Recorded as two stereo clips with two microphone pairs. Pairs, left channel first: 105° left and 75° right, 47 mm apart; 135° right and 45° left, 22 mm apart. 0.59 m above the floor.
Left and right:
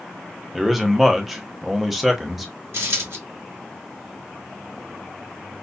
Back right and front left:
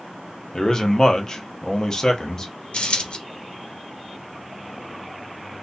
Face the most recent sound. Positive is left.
turn(degrees=-105)